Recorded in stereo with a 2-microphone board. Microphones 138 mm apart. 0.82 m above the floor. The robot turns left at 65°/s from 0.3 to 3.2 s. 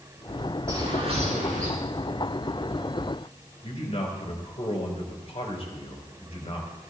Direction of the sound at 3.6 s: 50° left (ahead or behind).